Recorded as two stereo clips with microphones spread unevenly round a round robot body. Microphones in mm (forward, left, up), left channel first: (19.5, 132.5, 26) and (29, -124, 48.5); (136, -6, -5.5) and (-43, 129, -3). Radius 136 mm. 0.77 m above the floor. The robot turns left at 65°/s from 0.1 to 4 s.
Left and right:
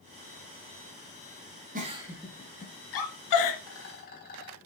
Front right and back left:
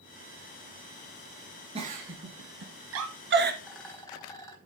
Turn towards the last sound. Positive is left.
turn(degrees=40)